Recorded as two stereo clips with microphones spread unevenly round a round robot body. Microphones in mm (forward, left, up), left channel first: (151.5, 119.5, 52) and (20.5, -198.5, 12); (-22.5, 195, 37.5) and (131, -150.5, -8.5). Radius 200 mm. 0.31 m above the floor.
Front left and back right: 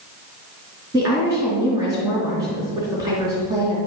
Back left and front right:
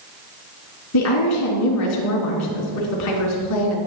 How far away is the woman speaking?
About 3 m.